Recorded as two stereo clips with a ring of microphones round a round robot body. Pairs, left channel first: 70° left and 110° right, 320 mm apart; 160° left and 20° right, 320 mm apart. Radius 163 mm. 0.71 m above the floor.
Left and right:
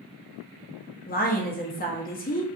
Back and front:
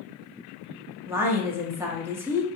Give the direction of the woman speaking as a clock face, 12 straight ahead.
10 o'clock.